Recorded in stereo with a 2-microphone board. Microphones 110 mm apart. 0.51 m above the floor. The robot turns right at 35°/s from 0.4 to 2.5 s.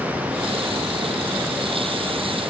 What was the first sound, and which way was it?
Only background noise.